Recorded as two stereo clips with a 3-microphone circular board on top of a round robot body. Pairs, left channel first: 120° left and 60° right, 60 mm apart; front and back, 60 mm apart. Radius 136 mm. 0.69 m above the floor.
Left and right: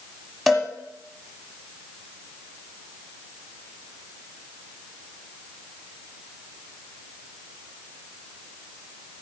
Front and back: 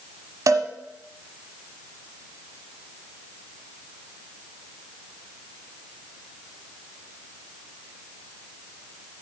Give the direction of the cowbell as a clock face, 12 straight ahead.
5 o'clock.